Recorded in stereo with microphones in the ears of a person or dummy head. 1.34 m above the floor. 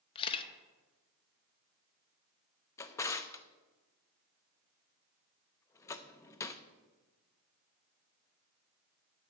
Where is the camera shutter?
30° left (ahead or behind), 0.7 m.